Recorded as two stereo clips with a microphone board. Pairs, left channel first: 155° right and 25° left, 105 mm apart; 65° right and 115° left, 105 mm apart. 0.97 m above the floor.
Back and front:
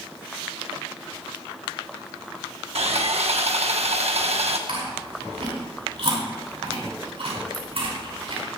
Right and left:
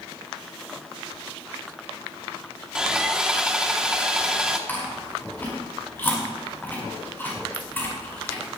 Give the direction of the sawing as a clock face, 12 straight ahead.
11 o'clock.